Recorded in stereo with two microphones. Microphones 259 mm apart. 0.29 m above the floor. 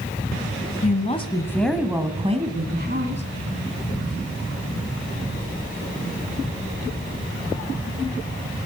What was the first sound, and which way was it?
A woman speaking, 35° left (ahead or behind).